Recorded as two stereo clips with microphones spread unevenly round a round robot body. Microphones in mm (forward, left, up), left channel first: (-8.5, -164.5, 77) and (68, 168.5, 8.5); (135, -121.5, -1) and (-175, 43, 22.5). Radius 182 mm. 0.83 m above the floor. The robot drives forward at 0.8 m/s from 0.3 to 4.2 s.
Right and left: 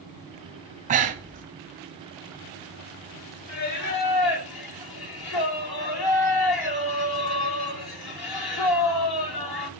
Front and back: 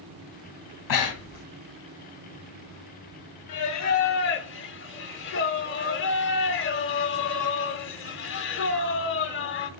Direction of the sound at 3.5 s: 65° right.